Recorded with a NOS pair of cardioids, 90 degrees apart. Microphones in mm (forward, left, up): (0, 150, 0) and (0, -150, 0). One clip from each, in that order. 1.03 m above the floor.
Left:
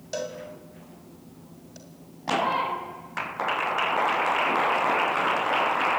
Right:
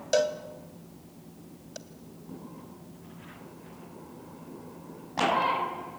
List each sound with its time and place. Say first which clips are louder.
0.1 s a cowbell: right 7 dB; 50° right, 2 m